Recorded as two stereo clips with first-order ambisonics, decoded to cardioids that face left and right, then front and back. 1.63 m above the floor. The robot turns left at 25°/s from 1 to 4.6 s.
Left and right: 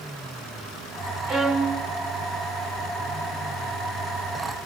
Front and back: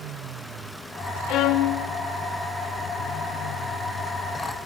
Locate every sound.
1.3 s a violin: 25° left, 3 m; by 1.8 s 15° left, 3 m